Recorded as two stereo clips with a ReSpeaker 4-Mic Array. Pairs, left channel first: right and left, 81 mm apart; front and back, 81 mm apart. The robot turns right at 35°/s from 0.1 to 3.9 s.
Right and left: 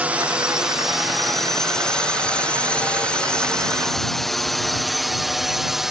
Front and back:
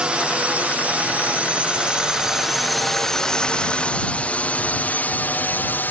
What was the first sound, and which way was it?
A drone, 125° left.